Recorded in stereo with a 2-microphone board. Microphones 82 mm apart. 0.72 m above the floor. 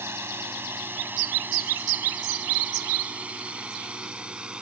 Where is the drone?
30° right (ahead or behind); by 4.6 s 10° right (ahead or behind).